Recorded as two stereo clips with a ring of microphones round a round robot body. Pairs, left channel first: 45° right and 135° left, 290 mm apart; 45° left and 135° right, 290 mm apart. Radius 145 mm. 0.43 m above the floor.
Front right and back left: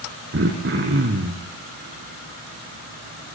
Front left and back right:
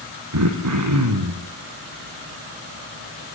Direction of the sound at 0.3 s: 170° right.